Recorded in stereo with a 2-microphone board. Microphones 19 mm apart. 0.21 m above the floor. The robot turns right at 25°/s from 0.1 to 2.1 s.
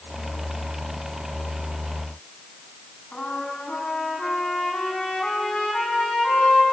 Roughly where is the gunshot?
No gunshot in this recording.